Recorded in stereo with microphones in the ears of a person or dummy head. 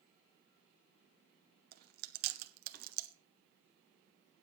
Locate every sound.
1.7 s chewing: 55° right (ahead or behind), 1.2 m